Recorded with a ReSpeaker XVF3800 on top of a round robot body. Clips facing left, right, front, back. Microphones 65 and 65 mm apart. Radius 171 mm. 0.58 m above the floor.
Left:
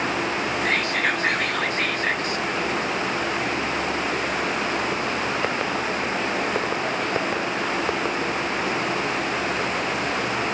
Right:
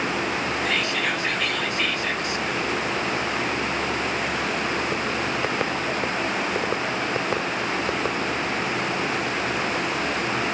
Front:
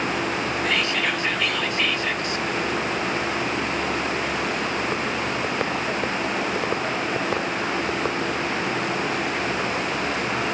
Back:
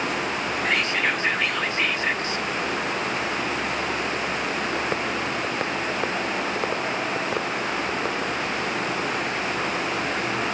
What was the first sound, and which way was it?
Whispering, 130° left.